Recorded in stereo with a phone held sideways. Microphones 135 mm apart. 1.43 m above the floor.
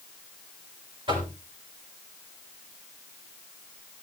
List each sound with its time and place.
1.1 s knocking: 40° right (ahead or behind), 7.5 m